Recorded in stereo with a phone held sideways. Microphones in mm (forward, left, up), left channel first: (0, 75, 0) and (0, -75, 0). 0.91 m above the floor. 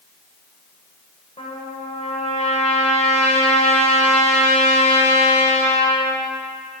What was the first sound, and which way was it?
A trumpet, 45° left (ahead or behind).